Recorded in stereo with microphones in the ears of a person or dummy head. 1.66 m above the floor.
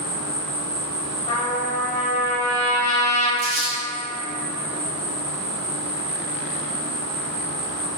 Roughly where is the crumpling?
Right.